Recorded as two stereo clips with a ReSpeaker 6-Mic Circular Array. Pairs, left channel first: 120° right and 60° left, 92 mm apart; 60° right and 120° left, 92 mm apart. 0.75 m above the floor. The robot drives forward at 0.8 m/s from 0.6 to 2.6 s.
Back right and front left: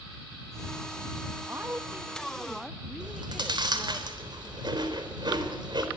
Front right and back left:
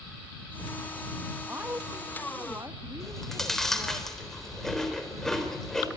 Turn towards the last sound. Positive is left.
turn(degrees=25)